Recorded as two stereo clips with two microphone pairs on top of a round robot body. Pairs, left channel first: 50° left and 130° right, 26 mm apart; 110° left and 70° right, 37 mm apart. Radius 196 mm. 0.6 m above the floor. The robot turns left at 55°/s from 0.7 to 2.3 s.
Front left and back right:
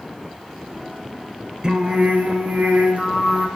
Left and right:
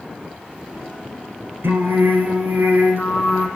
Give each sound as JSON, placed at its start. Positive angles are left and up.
{"t": 1.6, "sound": "singing", "azimuth_deg": -60, "distance_m": 2.0}